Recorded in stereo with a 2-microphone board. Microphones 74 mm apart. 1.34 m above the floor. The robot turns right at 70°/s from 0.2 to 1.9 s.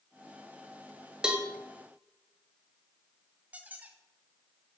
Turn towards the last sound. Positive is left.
turn(degrees=-15)  # may be behind; listen again after turning